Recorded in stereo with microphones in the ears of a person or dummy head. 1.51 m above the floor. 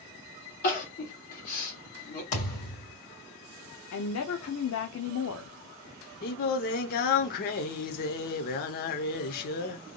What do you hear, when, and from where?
0.6 s crying: 50° left (ahead or behind), 1.7 m
2.3 s a thud: 45° left (ahead or behind), 2.5 m
3.9 s a woman speaking: 70° left (ahead or behind), 0.6 m
6.2 s singing: 50° left (ahead or behind), 0.7 m